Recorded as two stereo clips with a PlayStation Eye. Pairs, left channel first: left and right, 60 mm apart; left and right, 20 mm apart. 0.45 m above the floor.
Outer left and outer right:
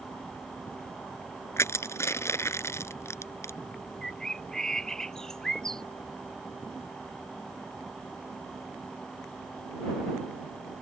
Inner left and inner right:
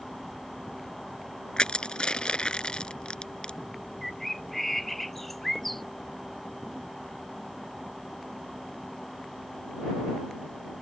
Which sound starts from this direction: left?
Crushing, at 1.6 s.